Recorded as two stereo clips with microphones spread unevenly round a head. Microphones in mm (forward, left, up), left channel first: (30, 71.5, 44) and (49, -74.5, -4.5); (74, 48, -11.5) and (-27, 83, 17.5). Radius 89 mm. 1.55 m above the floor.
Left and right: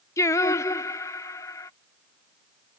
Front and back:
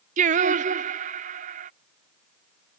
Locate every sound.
0.2 s singing: 175° left